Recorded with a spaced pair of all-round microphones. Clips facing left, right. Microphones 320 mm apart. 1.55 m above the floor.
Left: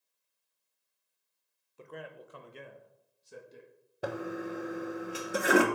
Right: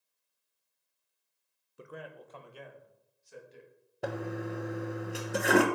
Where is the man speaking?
20° right (ahead or behind), 0.9 m; by 3.7 s 50° left (ahead or behind), 2 m.